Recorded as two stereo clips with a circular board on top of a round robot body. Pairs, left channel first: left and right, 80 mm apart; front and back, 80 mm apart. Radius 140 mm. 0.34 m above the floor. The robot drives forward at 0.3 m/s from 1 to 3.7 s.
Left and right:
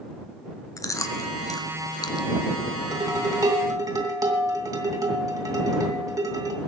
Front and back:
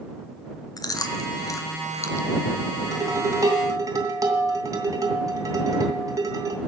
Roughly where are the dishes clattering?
Behind right.